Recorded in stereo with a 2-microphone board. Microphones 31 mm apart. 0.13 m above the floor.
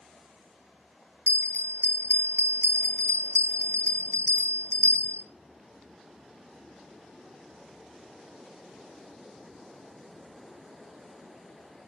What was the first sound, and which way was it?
A bell, 55° left (ahead or behind).